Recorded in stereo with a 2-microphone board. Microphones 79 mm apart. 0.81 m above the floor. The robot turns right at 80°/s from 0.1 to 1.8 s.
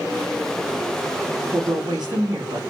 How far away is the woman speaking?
About 1.3 m.